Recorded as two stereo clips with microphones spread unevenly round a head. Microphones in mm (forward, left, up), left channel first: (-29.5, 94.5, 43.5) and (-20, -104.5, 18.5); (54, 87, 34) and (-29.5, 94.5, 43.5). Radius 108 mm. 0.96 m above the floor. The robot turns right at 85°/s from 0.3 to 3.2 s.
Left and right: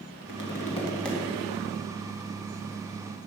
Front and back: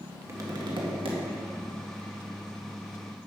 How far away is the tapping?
About 1.8 m.